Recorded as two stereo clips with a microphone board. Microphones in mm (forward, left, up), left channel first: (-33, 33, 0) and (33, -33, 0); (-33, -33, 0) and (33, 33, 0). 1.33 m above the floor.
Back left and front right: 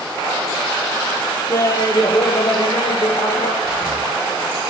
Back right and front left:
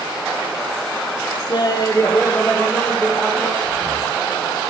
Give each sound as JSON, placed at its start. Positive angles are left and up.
{"t": 1.5, "sound": "laughter", "azimuth_deg": -170, "distance_m": 1.3}
{"t": 3.6, "sound": "breathing", "azimuth_deg": -140, "distance_m": 2.0}